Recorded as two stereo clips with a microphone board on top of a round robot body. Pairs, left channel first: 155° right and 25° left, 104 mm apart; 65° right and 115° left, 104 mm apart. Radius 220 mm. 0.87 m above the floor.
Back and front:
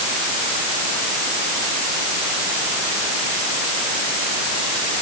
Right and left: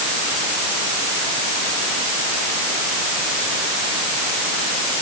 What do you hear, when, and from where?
Only background noise.